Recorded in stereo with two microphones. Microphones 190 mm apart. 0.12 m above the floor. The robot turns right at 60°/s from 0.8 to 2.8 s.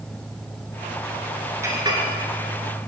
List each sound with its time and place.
1.6 s a clink: 15° right (ahead or behind), 1.1 m; by 2.0 s 30° right (ahead or behind), 1.1 m